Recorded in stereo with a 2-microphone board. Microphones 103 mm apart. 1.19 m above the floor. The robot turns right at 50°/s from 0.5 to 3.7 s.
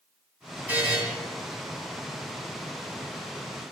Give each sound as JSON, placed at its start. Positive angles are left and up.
{"t": 0.7, "sound": "a buzzer", "side_deg": -15, "distance_m": 1.6}